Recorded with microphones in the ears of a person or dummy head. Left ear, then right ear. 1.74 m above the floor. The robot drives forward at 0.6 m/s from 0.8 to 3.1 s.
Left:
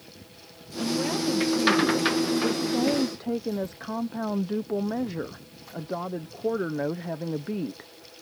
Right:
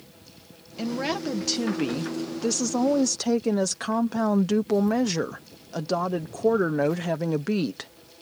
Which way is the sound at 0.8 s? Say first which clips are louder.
Left 1 dB; 35° right (ahead or behind).